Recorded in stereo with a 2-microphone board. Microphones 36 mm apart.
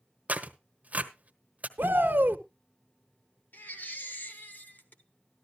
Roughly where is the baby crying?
Left.